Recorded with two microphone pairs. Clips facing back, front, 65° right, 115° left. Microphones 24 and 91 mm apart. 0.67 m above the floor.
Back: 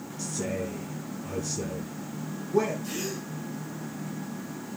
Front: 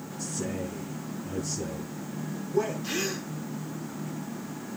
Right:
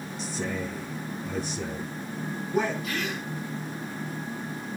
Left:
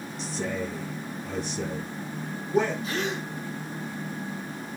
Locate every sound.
0.2 s a man speaking: 155° right, 8 m
2.8 s a gasp: 60° left, 1.1 m